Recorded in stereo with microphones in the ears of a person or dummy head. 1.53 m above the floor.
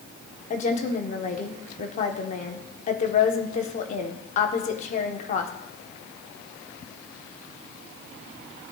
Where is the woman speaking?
40° left (ahead or behind), 1.0 m.